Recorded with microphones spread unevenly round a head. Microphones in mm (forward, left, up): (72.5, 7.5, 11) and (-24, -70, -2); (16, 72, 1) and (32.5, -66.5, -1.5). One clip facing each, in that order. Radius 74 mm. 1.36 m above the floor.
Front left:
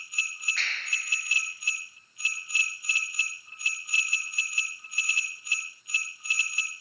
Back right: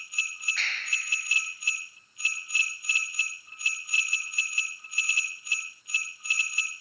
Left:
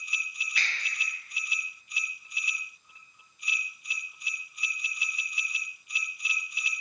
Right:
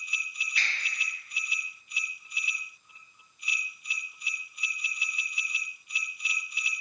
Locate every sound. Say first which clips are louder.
0.6 s a finger snap: even, even; 130° left, 0.7 m